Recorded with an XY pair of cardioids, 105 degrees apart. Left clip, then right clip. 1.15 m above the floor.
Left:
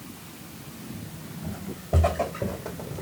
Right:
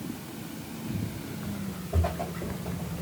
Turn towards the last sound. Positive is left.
turn(degrees=55)